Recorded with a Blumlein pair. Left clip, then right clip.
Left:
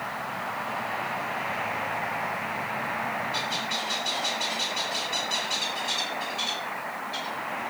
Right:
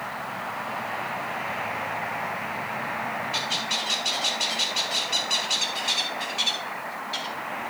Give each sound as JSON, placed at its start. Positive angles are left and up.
{"t": 3.3, "sound": "a bird", "azimuth_deg": -65, "distance_m": 2.0}